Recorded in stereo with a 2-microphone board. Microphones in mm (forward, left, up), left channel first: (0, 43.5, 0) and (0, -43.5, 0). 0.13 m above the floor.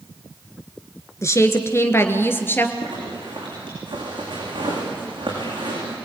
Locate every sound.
1.2 s a woman speaking: 35° left (ahead or behind), 1.8 m; by 2.7 s 25° left (ahead or behind), 2.5 m
2.8 s a zipper: 65° right (ahead or behind), 9 m